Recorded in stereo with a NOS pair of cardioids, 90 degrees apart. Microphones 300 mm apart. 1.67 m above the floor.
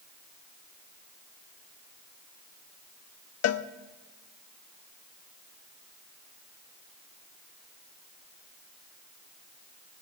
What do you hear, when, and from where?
3.4 s a cowbell: 55° left, 0.7 m